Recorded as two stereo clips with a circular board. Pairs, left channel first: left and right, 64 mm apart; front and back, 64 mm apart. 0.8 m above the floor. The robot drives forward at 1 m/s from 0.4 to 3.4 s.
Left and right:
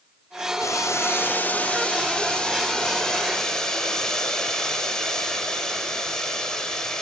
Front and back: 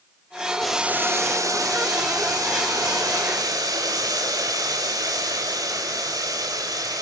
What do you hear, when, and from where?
0.6 s boiling: 80° left, 0.5 m; by 7.0 s 170° left, 3 m